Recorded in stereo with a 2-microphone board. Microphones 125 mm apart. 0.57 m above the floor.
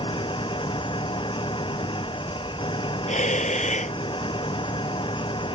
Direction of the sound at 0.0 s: 40° left (ahead or behind).